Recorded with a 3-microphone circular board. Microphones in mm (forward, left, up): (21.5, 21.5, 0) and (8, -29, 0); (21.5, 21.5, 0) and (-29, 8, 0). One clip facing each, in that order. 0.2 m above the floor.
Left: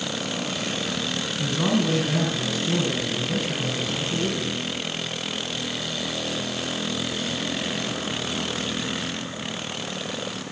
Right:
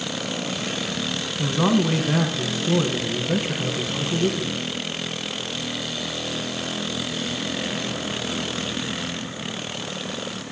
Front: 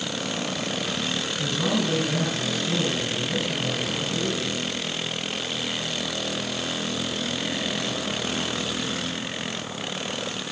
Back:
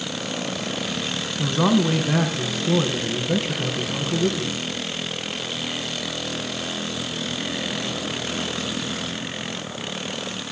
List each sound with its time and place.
1.4 s a man speaking: 155° right, 1.9 m